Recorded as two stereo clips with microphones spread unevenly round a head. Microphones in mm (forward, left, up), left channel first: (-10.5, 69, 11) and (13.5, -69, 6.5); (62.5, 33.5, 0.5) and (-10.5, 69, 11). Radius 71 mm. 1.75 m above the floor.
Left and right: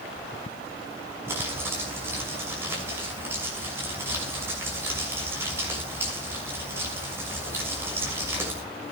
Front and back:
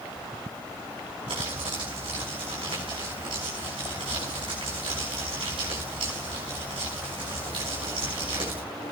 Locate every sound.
1.3 s crumpling: 155° right, 6.5 m